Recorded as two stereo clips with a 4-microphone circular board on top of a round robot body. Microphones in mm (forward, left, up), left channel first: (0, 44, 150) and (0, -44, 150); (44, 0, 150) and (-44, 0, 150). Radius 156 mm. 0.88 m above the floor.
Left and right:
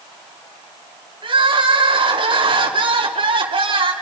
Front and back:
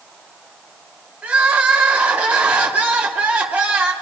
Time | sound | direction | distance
1.2 | crying | 105° right | 3 m